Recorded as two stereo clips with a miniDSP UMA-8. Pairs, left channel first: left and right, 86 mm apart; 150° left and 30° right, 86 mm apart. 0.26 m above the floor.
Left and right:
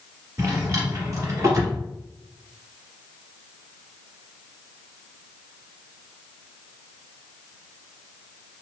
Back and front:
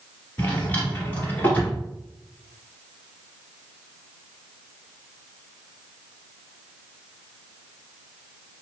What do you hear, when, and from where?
0.4 s a drawer: 140° right, 1.4 m